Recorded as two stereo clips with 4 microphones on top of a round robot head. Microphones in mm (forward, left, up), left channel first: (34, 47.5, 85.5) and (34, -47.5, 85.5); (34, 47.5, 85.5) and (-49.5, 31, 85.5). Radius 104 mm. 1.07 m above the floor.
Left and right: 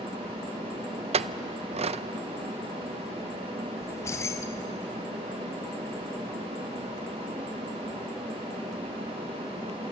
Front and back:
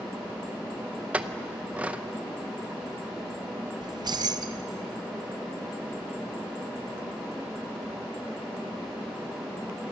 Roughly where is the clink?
Right.